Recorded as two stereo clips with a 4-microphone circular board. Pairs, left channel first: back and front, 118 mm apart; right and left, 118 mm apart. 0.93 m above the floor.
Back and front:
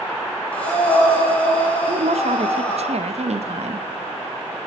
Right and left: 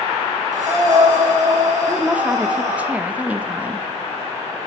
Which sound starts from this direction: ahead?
A woman speaking, at 1.9 s.